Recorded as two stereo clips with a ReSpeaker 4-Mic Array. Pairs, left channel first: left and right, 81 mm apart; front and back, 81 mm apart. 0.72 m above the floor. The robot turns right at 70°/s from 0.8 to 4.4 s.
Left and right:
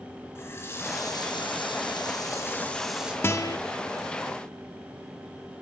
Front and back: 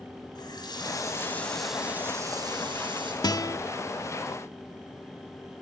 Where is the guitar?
30° left, 1.0 m; by 3.6 s 55° left, 1.0 m.